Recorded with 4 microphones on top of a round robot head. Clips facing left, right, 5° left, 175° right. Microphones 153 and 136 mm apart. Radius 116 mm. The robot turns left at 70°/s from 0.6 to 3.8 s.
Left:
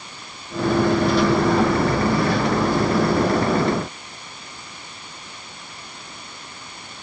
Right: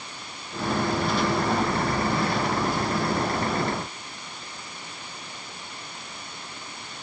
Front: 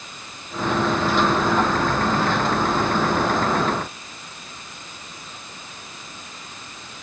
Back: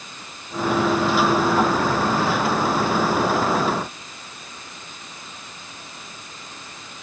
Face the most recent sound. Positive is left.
No sound to turn to.